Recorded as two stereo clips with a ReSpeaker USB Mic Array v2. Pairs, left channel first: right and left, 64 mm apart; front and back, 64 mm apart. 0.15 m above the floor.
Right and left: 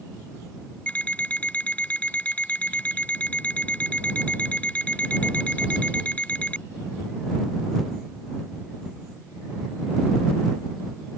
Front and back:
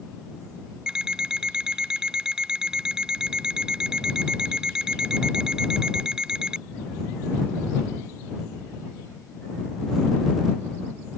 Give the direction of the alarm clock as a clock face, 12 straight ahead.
4 o'clock.